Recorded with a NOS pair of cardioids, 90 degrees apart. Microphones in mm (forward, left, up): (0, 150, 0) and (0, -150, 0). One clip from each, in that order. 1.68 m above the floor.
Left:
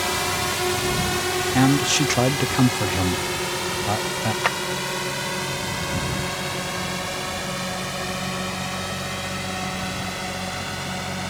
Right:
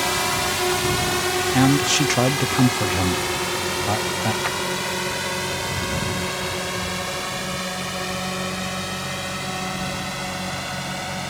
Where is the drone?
15° right; by 11.3 s 10° right.